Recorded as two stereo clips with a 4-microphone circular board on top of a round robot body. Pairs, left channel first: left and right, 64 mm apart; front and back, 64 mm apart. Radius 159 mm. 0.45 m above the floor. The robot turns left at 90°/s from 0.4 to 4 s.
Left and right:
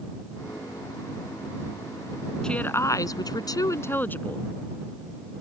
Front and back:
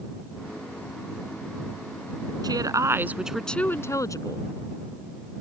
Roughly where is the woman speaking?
Behind.